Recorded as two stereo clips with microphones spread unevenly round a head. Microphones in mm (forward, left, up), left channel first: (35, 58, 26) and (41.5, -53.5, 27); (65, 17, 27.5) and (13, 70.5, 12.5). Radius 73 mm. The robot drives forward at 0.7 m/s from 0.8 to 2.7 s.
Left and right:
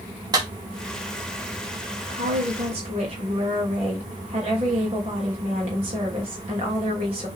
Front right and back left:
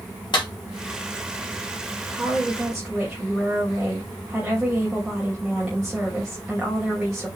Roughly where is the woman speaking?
Behind right.